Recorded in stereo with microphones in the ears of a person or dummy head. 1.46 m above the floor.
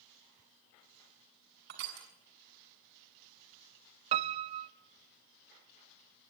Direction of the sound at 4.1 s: 35° right (ahead or behind).